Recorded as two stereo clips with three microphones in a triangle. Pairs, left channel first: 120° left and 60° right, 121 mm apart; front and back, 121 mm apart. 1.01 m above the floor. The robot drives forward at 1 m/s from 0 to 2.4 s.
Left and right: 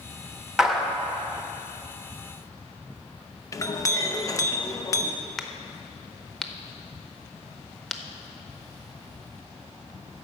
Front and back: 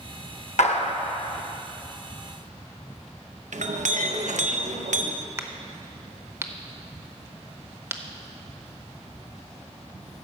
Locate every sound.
0.6 s a clap: 25° left, 0.9 m; by 0.9 s 40° left, 0.6 m
3.5 s a clink: 175° right, 0.6 m
5.4 s a crack: 155° right, 0.7 m